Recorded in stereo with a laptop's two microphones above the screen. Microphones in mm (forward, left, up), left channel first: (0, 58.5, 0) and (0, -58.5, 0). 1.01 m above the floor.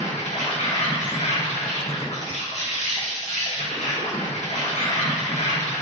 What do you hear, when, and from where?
0.0 s an insect: 75° left (ahead or behind), 0.9 m